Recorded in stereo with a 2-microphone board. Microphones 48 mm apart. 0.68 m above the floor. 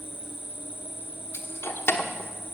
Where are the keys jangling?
60° left (ahead or behind), 1.1 m.